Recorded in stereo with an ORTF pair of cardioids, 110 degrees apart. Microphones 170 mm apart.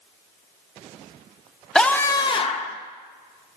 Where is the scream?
5° left, 1.1 m; by 2.8 s 45° left, 1.3 m.